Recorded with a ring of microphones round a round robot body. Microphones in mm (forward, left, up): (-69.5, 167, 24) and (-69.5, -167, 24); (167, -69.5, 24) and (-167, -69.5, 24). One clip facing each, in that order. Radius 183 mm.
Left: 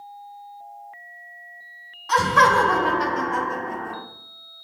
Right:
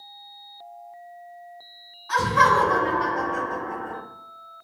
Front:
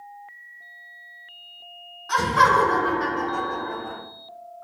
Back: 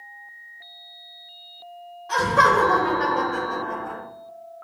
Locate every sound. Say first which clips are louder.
2.1 s laughter: left 2 dB, back 2 dB; 65° left, 1.6 m; by 4.0 s 125° left, 2 m